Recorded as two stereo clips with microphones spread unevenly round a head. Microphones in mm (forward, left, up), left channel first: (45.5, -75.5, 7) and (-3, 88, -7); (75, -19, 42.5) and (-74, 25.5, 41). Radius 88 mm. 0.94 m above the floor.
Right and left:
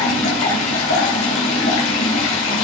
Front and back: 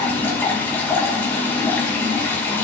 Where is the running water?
95° right, 2.5 m.